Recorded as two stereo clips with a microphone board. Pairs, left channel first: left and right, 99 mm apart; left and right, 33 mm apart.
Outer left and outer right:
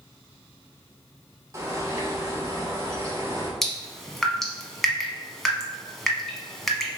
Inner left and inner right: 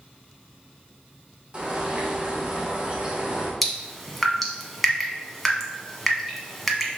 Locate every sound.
1.5 s a bird: 30° right (ahead or behind), 0.9 m
3.6 s dripping: 5° left (ahead or behind), 0.9 m